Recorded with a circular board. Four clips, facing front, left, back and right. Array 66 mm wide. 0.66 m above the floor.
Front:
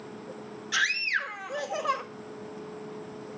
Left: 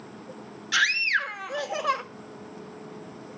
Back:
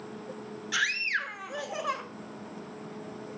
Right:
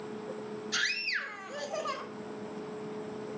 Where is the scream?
95° left, 1.5 m.